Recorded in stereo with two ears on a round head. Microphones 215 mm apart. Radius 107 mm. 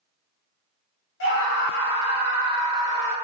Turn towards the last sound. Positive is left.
turn(degrees=50)  # may be behind; listen again after turning